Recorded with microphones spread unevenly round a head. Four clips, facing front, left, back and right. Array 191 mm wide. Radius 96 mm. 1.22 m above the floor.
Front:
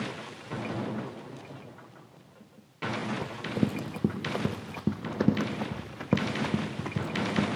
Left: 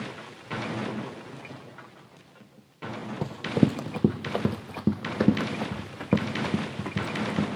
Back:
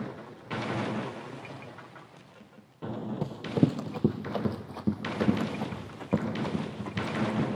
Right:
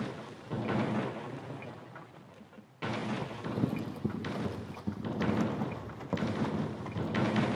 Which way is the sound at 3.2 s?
115° left.